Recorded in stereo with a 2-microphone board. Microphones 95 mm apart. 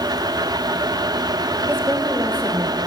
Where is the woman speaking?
25° right (ahead or behind), 1.3 m.